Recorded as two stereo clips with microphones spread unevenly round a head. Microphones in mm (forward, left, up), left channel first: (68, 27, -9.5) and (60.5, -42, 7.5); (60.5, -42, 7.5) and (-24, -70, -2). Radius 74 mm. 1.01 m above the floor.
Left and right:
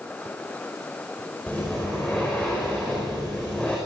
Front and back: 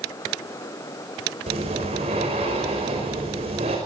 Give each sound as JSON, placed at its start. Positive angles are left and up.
{"t": 1.5, "sound": "breathing", "azimuth_deg": 165, "distance_m": 5.0}